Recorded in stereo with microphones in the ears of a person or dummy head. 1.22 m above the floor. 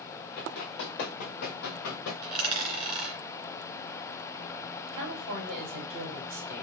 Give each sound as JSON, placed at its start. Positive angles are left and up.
{"t": 0.4, "sound": "running footsteps", "side_deg": 25, "distance_m": 2.0}
{"t": 2.2, "sound": "a dropped coin", "side_deg": -30, "distance_m": 1.6}
{"t": 4.9, "sound": "a woman speaking", "side_deg": -65, "distance_m": 3.0}